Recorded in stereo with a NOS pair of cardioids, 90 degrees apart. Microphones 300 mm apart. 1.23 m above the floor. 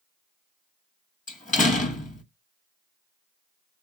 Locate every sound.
1.3 s a door slam: 25° left, 1.3 m